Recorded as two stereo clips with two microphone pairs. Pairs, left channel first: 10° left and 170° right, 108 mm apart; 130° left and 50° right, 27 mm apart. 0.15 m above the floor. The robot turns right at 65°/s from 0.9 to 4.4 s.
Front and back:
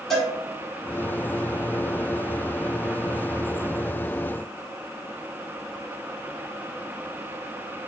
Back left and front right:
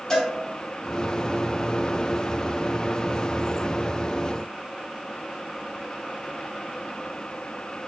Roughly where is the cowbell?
Left.